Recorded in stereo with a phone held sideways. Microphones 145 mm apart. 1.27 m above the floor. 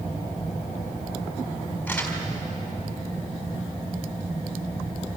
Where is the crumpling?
10° left (ahead or behind), 4 m.